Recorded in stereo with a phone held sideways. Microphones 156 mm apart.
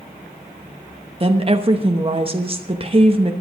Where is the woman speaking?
35° right (ahead or behind), 0.9 m.